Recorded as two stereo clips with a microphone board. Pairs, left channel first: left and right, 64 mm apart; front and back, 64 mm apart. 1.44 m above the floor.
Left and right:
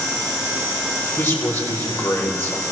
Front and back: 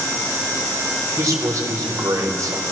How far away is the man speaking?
About 4.5 m.